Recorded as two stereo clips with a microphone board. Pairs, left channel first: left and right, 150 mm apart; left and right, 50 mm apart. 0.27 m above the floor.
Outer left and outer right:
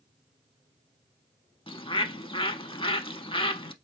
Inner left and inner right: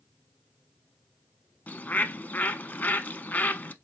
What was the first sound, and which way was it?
A bird, 35° left (ahead or behind).